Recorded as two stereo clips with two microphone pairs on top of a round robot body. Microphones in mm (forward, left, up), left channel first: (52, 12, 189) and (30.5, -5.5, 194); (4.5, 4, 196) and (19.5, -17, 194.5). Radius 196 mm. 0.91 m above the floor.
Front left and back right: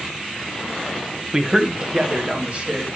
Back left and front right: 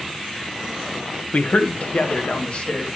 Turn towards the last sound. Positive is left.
turn(degrees=165)